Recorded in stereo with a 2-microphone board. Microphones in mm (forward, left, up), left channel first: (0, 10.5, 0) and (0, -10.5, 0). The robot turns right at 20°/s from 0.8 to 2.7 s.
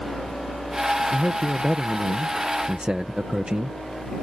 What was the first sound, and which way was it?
A man speaking, 155° right.